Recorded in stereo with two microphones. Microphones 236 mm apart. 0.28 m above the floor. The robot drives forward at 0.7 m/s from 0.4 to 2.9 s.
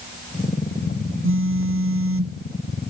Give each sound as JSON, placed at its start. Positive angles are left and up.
{"t": 1.2, "sound": "a phone buzzing", "side_deg": -60}